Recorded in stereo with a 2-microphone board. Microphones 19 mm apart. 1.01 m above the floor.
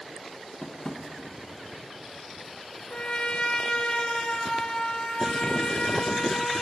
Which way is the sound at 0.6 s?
30° left (ahead or behind).